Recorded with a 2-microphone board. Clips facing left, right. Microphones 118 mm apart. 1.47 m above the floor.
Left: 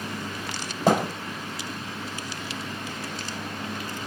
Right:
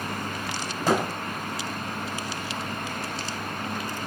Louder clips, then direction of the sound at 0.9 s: Left 2 dB; 55° left (ahead or behind).